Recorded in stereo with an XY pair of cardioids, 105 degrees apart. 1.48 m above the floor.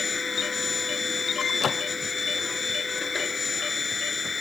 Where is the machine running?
30° left.